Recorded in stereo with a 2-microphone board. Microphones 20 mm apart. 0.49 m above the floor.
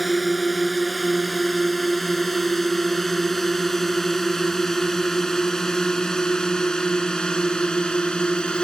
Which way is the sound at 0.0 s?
Centre (ahead or behind).